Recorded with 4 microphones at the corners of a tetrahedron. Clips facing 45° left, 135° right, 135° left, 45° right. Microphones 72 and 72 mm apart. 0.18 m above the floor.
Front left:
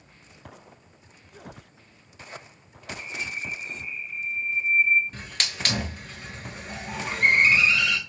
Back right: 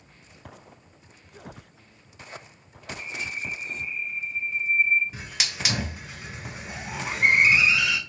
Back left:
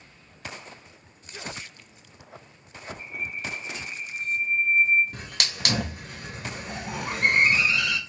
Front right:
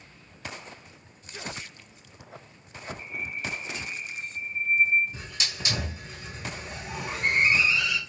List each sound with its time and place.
3.0 s a bird: 40° right, 0.8 m
5.1 s a hiss: 140° left, 0.7 m